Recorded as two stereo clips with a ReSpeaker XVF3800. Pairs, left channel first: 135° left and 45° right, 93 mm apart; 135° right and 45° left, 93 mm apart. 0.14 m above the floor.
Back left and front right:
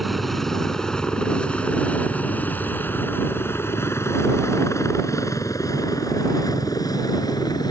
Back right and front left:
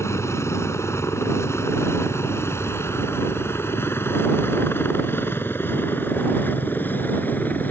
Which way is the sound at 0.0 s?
135° right.